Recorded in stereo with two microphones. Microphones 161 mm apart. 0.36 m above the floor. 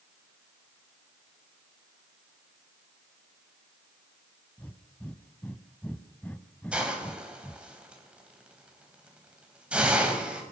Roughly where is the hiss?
Centre.